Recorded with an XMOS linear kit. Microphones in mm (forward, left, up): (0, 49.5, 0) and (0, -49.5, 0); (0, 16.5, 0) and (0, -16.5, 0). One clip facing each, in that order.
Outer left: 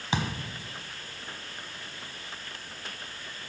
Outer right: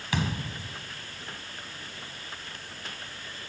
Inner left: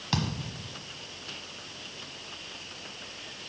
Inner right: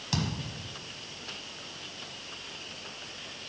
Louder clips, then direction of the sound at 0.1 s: Even, inner left 2 dB; 25° left (ahead or behind).